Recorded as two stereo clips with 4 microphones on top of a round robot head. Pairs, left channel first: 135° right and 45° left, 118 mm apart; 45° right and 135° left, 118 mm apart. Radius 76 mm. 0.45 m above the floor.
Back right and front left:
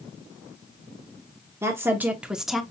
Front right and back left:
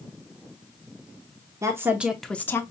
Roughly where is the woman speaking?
Left.